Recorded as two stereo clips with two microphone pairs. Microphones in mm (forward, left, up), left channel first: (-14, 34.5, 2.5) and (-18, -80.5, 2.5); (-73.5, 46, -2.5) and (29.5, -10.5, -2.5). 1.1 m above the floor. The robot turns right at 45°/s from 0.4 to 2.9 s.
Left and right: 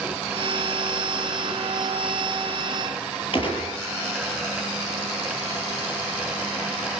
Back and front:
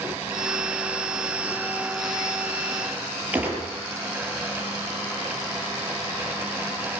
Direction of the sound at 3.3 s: 50° left.